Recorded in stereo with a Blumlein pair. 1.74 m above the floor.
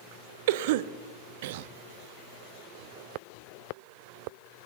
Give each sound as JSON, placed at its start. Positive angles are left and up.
{"t": 0.5, "sound": "a cough", "azimuth_deg": -50, "distance_m": 0.7}